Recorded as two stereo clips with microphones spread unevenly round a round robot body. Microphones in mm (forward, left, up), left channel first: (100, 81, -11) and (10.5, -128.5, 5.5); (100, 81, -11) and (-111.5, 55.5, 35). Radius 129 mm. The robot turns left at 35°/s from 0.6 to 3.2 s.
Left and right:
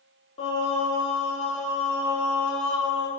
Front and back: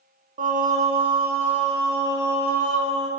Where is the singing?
135° left, 0.8 m; by 3.1 s 45° left, 0.8 m.